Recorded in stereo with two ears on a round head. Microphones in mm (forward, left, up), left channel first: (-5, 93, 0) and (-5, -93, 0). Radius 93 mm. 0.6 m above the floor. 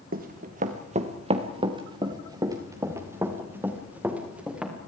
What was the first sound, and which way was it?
Running footsteps, 45° right (ahead or behind).